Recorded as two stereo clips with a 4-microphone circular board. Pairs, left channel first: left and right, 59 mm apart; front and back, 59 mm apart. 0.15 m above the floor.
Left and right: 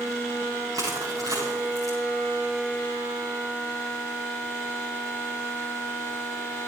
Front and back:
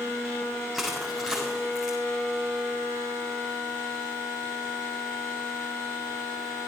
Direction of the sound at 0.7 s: 85° right.